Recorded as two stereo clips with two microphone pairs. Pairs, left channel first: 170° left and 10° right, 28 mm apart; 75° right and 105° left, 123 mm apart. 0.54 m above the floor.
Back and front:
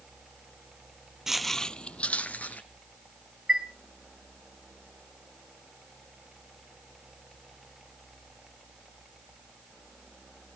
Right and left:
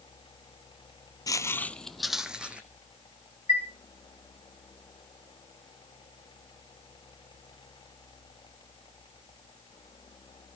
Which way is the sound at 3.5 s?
65° right.